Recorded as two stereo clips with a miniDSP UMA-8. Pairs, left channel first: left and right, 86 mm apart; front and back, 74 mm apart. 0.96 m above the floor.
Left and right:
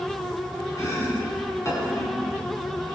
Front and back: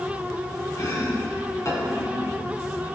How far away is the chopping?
About 3 m.